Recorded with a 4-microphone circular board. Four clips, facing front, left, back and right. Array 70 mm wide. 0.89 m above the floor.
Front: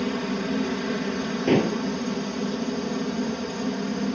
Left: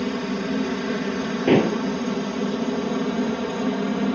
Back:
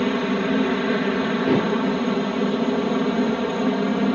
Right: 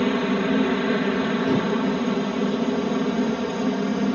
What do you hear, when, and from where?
0.0 s a helicopter: 140° right; by 4.2 s 175° left
1.5 s dishes clattering: 80° left